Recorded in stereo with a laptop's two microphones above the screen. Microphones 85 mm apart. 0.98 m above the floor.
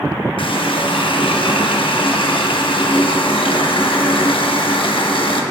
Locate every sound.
0.4 s a running tap: 80° left, 0.9 m